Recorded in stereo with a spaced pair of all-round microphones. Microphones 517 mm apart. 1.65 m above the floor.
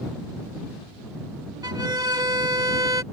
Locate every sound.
1.6 s a violin: 5° right (ahead or behind)